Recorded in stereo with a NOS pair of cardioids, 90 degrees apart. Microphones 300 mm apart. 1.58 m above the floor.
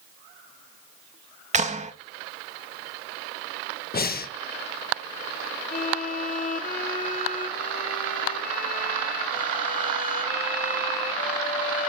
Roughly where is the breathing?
Ahead left.